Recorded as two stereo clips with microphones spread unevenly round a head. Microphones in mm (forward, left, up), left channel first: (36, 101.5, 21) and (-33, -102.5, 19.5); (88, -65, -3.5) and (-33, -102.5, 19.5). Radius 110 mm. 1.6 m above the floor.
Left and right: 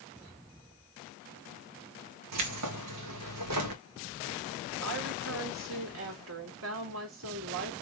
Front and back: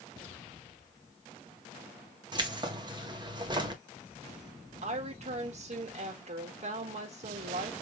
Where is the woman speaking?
140° right, 2 m.